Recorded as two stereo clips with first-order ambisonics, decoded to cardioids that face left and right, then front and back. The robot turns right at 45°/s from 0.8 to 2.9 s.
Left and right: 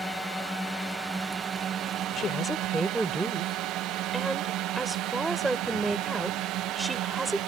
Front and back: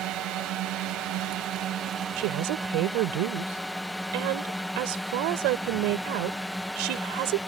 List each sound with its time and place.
0.0 s a drone: 175° left; by 7.5 s 90° right
2.2 s a woman speaking: 155° left; by 7.4 s 170° right